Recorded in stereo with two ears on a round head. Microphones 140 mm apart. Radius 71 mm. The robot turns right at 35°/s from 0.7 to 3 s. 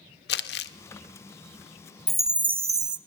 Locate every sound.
0.3 s crumpling: 70° left (ahead or behind), 1.3 m
2.1 s a chime: 175° left, 0.7 m; by 3.0 s 150° right, 0.7 m